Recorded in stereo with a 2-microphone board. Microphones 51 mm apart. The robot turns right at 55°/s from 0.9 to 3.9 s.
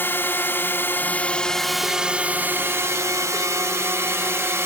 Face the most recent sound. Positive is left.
turn(degrees=-60)